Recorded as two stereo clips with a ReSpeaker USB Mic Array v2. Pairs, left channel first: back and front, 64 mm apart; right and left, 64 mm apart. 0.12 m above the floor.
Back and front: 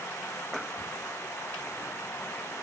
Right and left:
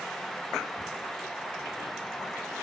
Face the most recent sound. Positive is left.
No sound to turn to.